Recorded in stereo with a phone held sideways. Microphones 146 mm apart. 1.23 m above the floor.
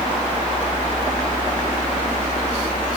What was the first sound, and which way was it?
A fan, 50° left (ahead or behind).